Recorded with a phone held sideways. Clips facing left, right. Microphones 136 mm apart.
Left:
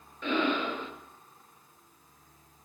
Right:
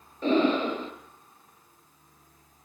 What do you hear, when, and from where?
0.2 s breathing: 35° right (ahead or behind), 4 m